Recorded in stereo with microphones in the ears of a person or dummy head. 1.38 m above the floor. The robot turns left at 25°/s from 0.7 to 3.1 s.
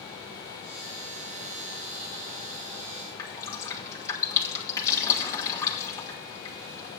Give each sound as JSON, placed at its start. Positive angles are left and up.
{"t": 3.2, "sound": "dripping", "side_deg": 20, "distance_m": 1.5}